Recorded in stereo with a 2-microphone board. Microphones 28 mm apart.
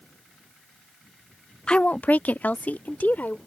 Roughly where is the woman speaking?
Left.